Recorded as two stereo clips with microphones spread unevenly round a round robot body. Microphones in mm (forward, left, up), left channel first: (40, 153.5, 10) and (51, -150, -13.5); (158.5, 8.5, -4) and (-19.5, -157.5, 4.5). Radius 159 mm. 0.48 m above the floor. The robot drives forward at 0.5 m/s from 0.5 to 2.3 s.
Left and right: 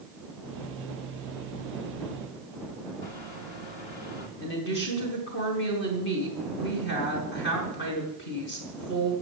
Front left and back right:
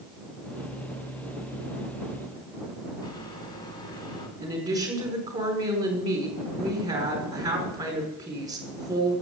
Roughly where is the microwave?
Left.